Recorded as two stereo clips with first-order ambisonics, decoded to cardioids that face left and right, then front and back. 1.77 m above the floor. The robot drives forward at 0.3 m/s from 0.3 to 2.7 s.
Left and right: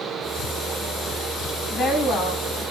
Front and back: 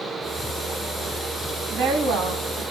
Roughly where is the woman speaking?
Behind.